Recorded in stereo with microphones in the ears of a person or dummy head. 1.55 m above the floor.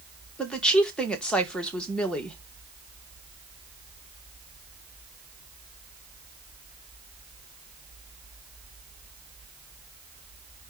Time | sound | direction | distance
0.4 | a woman speaking | centre (ahead or behind) | 1.6 m